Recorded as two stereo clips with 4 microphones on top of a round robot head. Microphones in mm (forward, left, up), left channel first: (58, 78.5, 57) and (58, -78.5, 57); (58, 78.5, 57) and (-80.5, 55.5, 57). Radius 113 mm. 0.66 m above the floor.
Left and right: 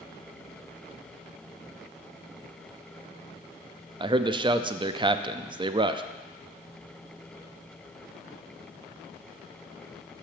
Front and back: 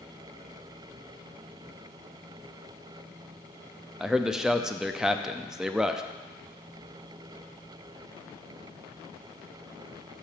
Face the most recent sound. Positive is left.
turn(degrees=-90)